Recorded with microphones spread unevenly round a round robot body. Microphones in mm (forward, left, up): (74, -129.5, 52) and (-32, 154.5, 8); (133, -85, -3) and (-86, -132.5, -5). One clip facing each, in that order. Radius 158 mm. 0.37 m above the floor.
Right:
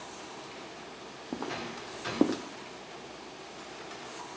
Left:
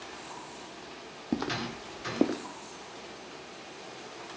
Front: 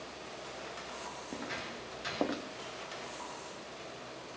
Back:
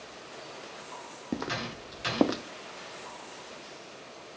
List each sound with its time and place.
1.3 s footsteps: 160° left, 0.7 m; by 2.4 s 140° right, 0.7 m